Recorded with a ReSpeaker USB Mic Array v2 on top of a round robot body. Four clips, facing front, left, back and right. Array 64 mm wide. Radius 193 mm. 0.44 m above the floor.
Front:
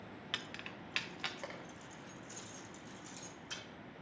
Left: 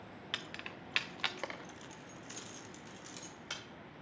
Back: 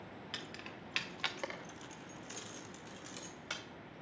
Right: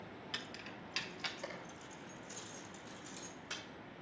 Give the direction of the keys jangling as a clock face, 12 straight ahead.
10 o'clock.